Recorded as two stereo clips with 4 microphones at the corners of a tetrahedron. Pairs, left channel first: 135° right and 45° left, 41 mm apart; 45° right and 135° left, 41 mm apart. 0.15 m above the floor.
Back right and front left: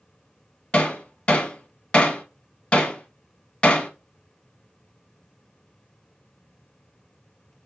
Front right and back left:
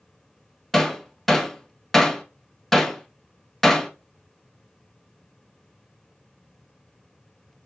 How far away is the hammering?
About 0.7 m.